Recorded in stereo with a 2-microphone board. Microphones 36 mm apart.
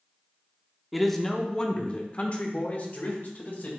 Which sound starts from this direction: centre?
A man speaking, at 0.9 s.